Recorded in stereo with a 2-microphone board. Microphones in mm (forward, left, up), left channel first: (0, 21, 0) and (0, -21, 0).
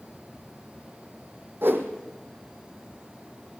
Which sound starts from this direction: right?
A whoosh, at 1.6 s.